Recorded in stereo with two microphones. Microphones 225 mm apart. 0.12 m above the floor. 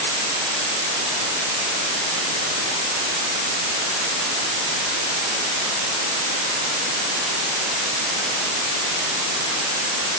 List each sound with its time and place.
Only background noise.